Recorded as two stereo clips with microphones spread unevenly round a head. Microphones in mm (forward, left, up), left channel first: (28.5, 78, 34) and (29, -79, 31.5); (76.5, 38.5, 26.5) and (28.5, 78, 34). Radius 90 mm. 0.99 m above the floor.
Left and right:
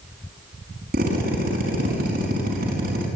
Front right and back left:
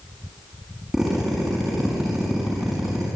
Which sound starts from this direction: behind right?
A drill, at 0.9 s.